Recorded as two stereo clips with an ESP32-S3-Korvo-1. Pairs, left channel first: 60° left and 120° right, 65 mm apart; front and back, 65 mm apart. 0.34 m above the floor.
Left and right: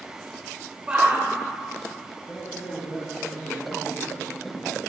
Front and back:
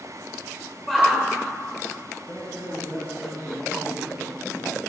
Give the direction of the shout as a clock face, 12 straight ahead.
3 o'clock.